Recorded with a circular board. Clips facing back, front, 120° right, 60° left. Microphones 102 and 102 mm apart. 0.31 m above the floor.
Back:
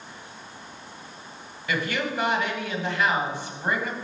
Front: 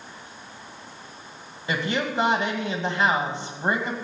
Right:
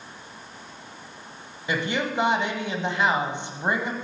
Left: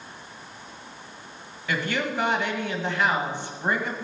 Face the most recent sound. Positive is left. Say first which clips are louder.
# front 1 dB, right 1 dB
turn(degrees=-55)